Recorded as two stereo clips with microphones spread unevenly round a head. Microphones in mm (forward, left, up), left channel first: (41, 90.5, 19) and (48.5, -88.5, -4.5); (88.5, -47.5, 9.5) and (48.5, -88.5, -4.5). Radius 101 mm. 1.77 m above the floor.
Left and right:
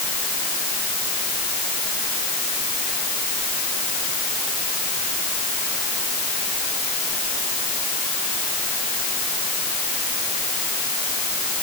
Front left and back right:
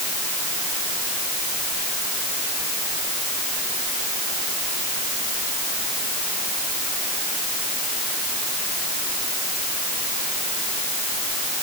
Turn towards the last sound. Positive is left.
No sound to turn to.